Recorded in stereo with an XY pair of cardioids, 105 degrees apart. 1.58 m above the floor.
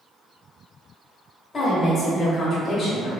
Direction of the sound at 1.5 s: 25° left.